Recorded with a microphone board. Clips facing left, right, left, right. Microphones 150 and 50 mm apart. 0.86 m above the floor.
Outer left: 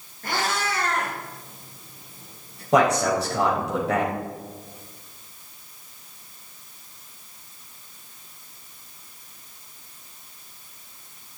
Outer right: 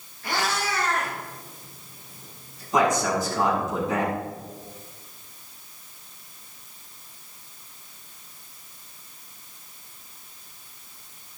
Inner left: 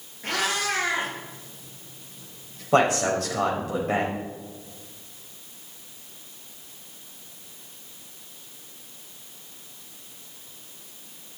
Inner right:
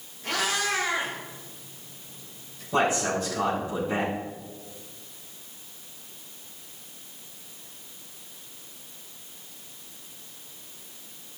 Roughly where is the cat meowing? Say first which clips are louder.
Outer left 1 dB, inner left 1 dB; left.